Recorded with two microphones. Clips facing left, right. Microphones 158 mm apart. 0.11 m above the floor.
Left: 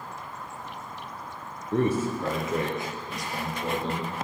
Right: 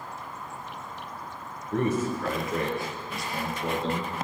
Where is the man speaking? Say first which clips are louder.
Left 1 dB; 30° left (ahead or behind), 1.8 m; by 4.1 s 10° left (ahead or behind), 3 m.